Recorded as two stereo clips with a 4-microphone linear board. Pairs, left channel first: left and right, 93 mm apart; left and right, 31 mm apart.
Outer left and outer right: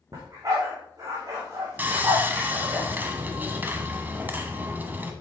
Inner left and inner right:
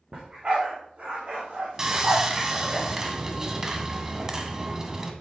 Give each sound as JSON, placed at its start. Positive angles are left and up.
{"t": 0.1, "sound": "a dog barking", "side_deg": -40, "distance_m": 3.5}
{"t": 1.8, "sound": "sawing", "side_deg": -20, "distance_m": 1.2}